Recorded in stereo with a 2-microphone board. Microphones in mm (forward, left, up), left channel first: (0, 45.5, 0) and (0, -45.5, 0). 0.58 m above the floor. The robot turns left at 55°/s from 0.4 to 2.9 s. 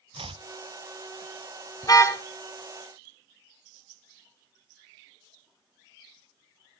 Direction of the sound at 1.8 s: 45° left (ahead or behind).